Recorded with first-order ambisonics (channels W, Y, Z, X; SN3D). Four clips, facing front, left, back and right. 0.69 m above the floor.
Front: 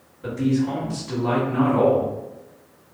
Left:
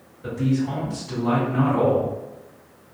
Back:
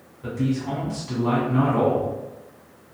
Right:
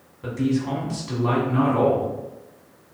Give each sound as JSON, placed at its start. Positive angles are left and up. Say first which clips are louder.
{"t": 0.2, "sound": "a man speaking", "louder": "even, front 3 dB", "azimuth_deg": -95, "distance_m": 1.5}